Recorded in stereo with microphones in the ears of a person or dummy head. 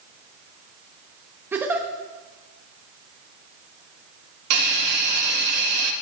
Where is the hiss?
60° right (ahead or behind), 1.0 m.